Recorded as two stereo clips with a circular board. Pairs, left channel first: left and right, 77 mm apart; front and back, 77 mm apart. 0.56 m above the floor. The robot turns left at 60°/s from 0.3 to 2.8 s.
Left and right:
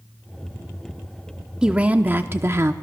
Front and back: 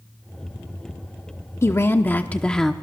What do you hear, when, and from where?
1.6 s a woman speaking: 20° right, 0.8 m; by 2.7 s 85° right, 0.8 m